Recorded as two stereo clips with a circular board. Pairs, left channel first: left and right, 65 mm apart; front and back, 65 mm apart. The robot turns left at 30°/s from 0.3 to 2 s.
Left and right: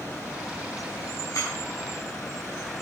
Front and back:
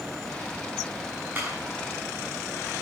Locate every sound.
1.4 s a clap: 115° left, 6.5 m